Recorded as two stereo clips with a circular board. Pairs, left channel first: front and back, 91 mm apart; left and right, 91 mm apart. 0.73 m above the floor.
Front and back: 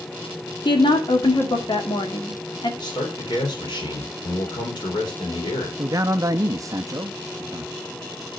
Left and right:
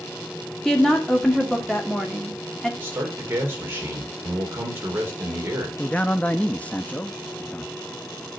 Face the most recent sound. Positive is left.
turn(degrees=155)